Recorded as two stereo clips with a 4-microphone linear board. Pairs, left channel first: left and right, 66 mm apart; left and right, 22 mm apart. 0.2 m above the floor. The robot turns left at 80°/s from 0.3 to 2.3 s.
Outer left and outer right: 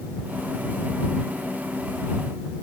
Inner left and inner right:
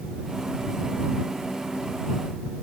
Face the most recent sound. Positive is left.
No sound to turn to.